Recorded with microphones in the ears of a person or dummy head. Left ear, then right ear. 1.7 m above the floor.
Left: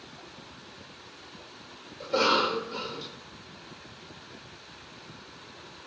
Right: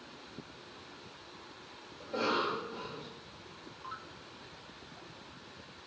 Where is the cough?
45° left (ahead or behind), 1.1 m.